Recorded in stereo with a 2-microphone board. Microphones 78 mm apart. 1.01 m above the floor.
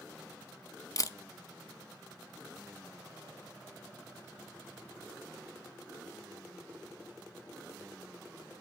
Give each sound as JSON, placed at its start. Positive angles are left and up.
{"t": 1.0, "sound": "a camera shutter", "side_deg": 45, "distance_m": 0.5}